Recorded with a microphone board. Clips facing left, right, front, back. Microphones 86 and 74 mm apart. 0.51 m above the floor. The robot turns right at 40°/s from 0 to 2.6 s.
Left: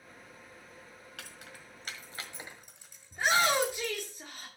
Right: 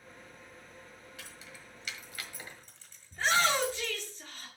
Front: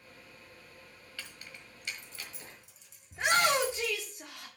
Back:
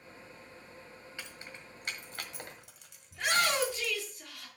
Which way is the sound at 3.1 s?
35° left.